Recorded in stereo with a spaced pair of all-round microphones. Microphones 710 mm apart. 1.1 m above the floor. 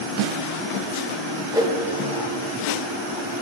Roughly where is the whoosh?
Centre.